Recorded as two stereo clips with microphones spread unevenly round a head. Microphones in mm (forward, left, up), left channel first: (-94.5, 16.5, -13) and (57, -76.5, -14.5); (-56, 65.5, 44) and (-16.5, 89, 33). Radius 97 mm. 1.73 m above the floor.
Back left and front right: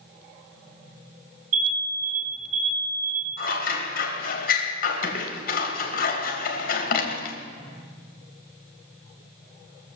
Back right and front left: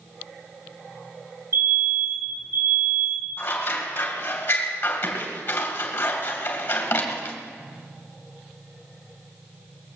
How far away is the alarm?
About 6.5 m.